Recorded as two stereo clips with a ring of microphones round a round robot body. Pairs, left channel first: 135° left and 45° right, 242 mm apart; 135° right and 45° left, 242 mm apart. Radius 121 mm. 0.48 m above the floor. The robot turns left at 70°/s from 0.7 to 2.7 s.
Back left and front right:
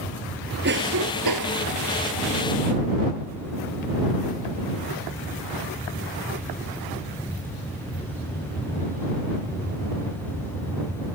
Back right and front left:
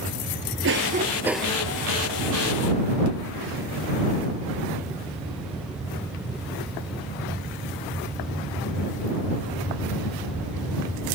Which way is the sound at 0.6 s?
Straight ahead.